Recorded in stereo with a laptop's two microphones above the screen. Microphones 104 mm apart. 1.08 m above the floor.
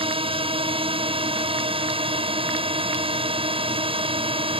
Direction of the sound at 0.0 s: 70° right (ahead or behind).